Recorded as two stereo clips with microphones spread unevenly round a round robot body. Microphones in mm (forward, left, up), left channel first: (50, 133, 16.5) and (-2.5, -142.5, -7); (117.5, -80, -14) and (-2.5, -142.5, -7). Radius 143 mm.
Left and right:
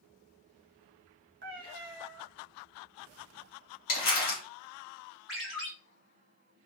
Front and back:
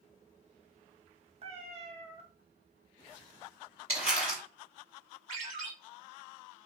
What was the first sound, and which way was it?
A cat meowing, 150° right.